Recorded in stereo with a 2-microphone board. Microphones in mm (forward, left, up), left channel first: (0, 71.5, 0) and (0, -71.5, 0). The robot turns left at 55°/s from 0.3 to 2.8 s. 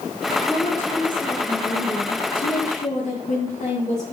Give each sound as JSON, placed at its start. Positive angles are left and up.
{"t": 0.5, "sound": "a woman speaking", "azimuth_deg": 180, "distance_m": 7.0}